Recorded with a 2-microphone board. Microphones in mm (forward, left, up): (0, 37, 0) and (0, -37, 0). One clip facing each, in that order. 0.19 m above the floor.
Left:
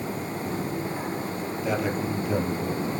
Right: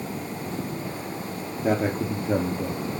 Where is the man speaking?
40° right (ahead or behind), 5.5 m; by 3.0 s 35° right (ahead or behind), 6 m.